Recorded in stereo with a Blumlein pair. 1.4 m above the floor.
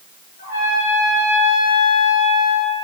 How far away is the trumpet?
About 3.5 m.